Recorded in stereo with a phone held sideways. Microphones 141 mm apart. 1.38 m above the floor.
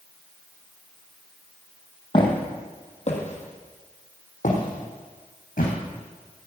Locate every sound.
2.1 s footsteps: 35° left (ahead or behind), 3 m; by 5.7 s 75° left (ahead or behind), 5 m